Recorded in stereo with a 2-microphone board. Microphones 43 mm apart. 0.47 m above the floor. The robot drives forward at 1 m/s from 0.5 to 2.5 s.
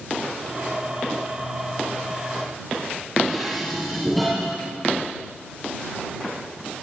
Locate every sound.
3.2 s dishes clattering: centre (ahead or behind), 6.5 m